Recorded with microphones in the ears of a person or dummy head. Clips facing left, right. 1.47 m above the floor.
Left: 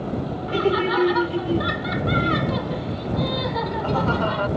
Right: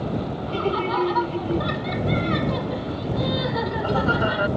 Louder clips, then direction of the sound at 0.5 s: Left 4 dB; 25° left (ahead or behind).